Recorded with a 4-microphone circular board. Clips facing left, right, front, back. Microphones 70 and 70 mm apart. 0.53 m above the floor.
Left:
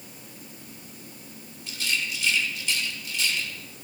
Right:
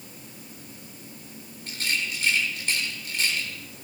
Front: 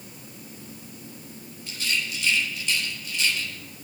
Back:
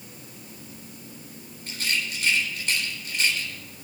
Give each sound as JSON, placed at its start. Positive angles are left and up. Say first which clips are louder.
{"t": 1.7, "sound": "a rattle", "louder": "even, even", "azimuth_deg": -130, "distance_m": 3.5}